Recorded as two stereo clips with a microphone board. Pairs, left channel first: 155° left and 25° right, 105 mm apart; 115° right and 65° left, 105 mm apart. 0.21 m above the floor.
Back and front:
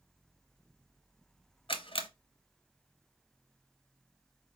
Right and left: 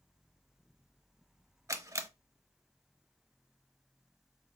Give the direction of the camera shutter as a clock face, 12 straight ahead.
8 o'clock.